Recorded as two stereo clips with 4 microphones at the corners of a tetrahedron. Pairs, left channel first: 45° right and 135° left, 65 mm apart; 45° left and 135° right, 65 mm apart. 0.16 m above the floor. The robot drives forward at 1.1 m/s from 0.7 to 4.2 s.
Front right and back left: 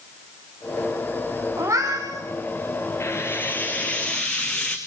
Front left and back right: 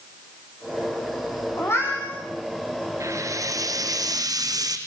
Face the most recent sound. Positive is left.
turn(degrees=-125)